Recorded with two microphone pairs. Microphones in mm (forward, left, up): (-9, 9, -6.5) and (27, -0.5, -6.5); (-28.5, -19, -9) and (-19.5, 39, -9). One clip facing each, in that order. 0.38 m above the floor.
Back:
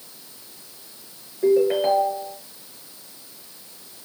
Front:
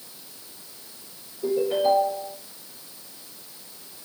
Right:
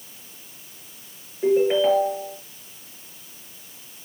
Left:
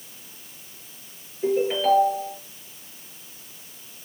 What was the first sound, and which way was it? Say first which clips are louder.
A ringtone: back 4 dB, right 3 dB; 165° right.